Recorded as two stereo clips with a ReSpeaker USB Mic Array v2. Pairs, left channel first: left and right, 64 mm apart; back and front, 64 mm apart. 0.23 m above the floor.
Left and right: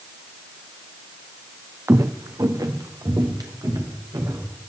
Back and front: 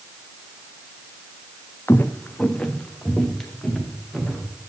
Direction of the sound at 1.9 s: 130° right.